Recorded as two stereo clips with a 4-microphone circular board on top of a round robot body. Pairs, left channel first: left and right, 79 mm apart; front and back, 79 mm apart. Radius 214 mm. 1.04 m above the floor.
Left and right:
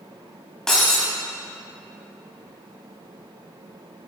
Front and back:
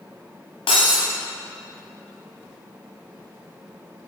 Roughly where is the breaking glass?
Ahead.